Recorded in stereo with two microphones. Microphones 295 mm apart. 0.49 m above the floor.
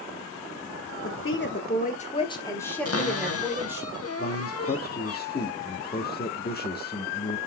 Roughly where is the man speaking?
Left.